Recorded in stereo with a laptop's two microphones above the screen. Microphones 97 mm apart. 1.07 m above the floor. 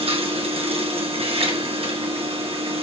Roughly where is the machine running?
Right.